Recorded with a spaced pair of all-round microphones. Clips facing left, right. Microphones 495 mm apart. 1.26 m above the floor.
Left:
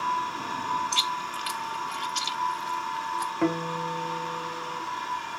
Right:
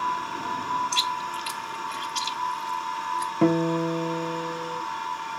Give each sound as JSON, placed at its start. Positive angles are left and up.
{"t": 0.9, "sound": "chewing", "side_deg": 5, "distance_m": 0.6}
{"t": 3.4, "sound": "a guitar", "side_deg": -55, "distance_m": 1.3}